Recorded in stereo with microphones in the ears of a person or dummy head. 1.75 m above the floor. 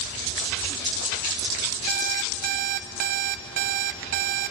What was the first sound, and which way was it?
An alarm clock, 30° right (ahead or behind).